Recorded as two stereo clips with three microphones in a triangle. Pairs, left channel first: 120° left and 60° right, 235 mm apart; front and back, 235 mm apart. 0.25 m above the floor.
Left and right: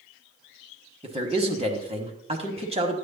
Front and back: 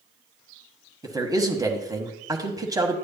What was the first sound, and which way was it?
A man speaking, 110° right.